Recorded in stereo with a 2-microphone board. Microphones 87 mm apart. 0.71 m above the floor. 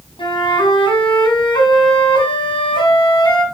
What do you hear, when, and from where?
0.2 s a flute: 85° left, 3 m